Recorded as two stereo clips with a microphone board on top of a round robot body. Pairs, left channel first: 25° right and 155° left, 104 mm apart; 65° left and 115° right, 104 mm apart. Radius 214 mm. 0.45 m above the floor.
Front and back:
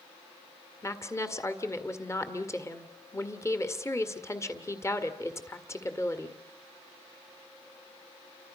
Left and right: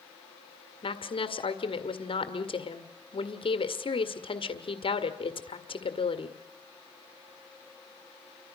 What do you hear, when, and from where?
0.8 s a woman speaking: 40° left, 2.0 m